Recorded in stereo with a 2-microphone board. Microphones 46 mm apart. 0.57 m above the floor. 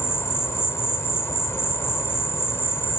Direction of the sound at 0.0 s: 80° left.